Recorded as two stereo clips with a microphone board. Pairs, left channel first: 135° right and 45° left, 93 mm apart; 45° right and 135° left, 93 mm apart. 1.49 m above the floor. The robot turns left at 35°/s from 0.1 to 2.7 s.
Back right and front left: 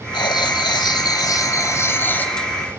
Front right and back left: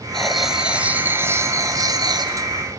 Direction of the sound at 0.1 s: 130° right.